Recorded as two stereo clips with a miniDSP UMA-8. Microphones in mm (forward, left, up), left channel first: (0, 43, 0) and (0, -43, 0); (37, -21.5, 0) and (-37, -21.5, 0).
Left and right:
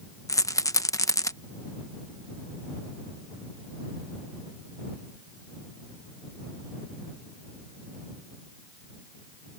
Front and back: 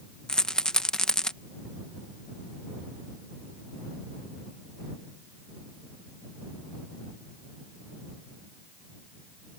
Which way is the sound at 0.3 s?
75° left.